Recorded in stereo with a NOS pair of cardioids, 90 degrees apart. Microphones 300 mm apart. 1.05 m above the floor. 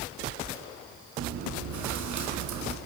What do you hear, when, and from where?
1.2 s chewing: 70° right, 5.5 m